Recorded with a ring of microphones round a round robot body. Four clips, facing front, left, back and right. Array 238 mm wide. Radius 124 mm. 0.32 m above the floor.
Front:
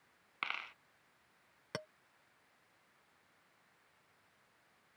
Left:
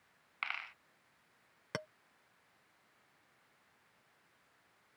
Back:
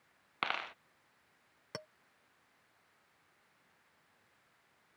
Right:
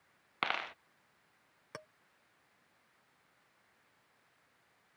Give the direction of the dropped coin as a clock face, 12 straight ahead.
4 o'clock.